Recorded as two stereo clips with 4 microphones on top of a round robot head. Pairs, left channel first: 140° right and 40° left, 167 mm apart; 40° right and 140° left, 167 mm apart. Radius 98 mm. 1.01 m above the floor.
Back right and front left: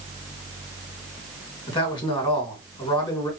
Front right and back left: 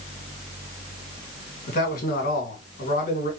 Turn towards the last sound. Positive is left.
turn(degrees=-80)